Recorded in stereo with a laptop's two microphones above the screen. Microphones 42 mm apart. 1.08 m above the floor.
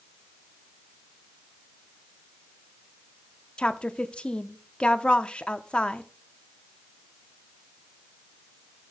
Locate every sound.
3.6 s a woman speaking: 25° left (ahead or behind), 0.6 m